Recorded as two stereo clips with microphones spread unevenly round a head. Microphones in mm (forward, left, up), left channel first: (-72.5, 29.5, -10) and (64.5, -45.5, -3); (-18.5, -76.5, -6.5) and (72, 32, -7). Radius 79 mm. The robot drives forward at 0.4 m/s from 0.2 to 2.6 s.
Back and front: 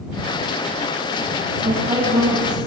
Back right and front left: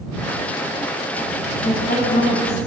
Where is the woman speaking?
95° right, 7.5 m; by 2.6 s 100° right, 7.5 m.